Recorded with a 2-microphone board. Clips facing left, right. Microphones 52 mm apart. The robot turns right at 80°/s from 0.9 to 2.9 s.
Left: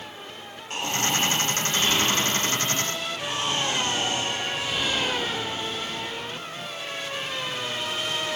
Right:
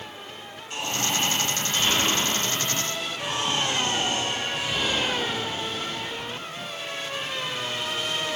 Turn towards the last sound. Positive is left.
turn(degrees=-75)